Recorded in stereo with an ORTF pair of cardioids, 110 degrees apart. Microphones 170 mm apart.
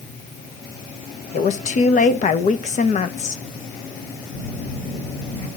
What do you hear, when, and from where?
1.3 s a woman speaking: 50° left, 1.4 m
4.3 s a phone buzzing: 40° left, 3.5 m